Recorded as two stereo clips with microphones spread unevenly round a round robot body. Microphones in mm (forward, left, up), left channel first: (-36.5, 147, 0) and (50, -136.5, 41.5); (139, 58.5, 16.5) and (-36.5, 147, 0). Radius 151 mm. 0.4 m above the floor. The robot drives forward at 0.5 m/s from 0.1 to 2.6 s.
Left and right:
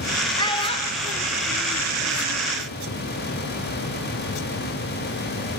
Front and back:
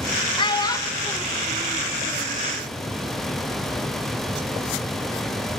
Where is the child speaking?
40° left, 1.4 m; by 2.4 s 105° left, 1.1 m.